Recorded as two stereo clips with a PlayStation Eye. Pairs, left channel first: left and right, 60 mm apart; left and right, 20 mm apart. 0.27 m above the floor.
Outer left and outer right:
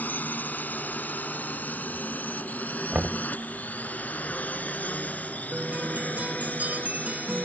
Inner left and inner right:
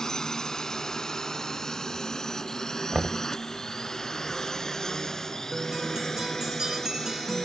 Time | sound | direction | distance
0.0 | a drone | 30° left (ahead or behind) | ?
2.9 | knocking | 20° right (ahead or behind) | ?
5.5 | a guitar | 25° right (ahead or behind) | ?